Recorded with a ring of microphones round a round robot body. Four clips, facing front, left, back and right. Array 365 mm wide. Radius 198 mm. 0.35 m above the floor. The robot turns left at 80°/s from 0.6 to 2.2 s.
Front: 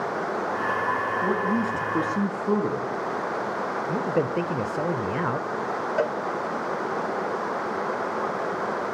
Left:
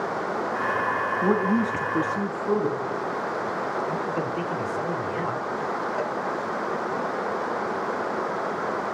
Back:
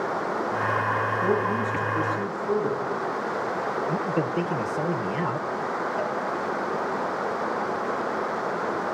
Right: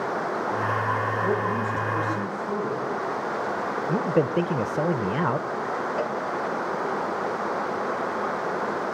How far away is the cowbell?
About 0.9 m.